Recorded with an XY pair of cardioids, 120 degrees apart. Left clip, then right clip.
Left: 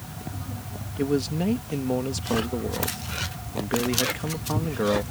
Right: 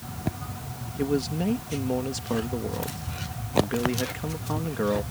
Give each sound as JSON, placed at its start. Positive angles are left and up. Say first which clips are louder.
{"t": 1.0, "sound": "a man speaking", "louder": "left 1 dB", "azimuth_deg": 10}